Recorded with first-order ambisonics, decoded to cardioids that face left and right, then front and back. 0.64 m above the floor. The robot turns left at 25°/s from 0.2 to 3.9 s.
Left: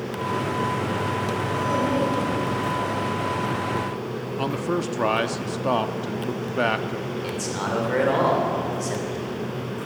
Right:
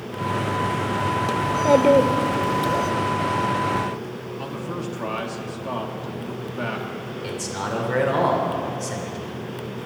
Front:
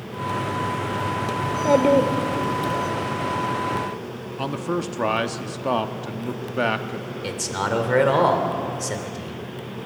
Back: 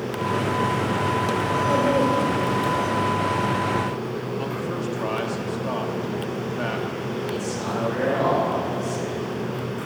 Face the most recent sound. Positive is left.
turn(degrees=5)